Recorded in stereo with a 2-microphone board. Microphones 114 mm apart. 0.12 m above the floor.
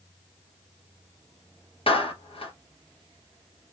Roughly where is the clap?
Left.